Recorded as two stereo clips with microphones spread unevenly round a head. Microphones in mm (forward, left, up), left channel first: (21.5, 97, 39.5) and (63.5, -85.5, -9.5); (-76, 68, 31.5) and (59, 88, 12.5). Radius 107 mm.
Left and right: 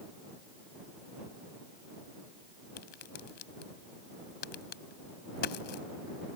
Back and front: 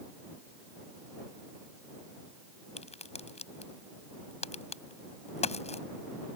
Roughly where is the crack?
Behind left.